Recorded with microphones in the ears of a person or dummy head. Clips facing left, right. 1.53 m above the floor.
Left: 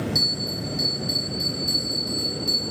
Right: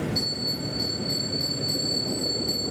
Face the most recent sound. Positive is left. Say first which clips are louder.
# left 1 dB
turn(degrees=65)  # may be behind; listen again after turning